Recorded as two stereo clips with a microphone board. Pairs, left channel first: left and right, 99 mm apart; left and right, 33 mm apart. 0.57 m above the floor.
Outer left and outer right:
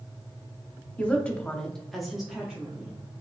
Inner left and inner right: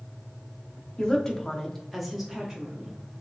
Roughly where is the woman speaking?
Centre.